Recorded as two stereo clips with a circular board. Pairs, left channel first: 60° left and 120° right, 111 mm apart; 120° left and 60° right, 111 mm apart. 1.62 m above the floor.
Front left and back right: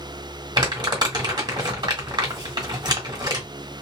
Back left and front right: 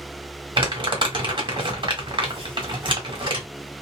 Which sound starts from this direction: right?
Crumpling, at 0.6 s.